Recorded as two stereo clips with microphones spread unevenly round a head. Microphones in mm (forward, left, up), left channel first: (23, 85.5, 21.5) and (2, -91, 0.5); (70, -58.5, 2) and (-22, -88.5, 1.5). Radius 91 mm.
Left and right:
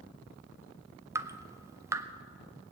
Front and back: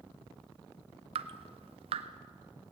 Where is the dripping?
165° right, 0.6 m.